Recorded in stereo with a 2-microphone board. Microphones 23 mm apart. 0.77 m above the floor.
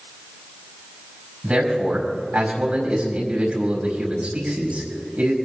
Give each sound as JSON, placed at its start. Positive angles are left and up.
{"t": 1.4, "sound": "a man speaking", "side_deg": -80, "distance_m": 4.5}